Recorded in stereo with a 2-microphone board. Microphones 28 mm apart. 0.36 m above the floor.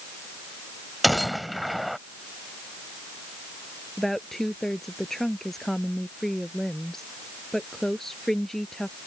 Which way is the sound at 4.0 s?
15° left (ahead or behind).